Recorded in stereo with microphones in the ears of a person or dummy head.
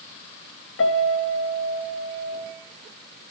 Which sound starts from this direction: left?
A piano, at 0.8 s.